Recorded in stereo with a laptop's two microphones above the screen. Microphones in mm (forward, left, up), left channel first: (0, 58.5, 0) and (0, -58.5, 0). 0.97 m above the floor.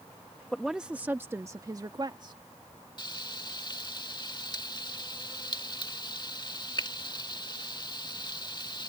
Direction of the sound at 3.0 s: 40° left (ahead or behind).